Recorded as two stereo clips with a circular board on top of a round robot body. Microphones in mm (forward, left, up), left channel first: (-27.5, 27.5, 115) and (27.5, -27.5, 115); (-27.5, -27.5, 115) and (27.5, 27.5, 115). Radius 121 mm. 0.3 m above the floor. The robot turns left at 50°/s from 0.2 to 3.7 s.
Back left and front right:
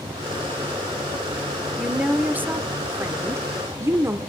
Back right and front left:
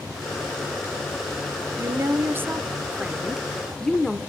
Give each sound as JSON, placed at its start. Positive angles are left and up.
{"t": 1.8, "sound": "a woman speaking", "azimuth_deg": 35, "distance_m": 1.0}